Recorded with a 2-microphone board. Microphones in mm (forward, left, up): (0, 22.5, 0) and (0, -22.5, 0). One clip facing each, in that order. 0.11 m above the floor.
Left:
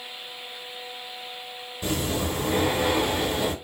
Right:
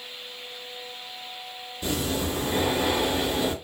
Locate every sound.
1.8 s breathing: 15° left (ahead or behind), 1.7 m